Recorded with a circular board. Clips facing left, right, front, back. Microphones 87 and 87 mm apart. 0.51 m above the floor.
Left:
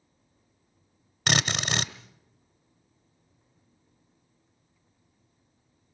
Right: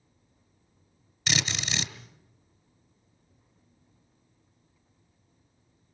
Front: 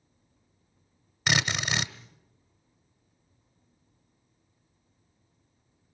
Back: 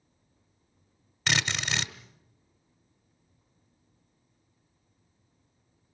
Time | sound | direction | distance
1.3 | a drill | 75° left | 1.2 m